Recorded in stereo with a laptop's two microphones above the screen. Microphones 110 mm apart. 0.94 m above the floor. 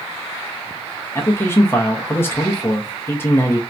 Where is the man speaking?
20° left (ahead or behind), 0.7 m.